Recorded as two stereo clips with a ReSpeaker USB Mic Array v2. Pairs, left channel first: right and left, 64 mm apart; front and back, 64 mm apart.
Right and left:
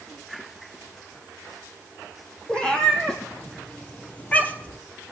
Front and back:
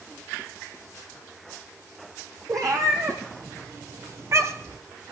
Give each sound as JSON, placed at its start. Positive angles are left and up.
{"t": 2.5, "sound": "a cat meowing", "azimuth_deg": -165, "distance_m": 2.5}